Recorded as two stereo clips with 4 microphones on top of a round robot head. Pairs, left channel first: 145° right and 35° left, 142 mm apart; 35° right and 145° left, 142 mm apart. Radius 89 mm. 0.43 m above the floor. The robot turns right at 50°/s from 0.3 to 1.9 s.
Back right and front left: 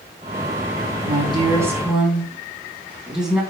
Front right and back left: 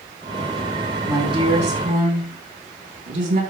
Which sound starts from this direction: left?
A woman speaking, at 1.0 s.